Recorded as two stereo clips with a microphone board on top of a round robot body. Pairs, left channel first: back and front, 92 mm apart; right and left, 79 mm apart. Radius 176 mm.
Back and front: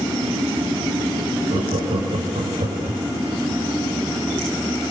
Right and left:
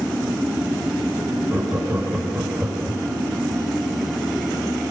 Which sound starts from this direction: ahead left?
Laughter, at 1.5 s.